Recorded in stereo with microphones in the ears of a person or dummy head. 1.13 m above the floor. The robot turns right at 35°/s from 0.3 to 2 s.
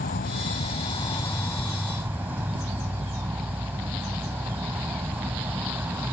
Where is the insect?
130° left; by 6.1 s 170° right.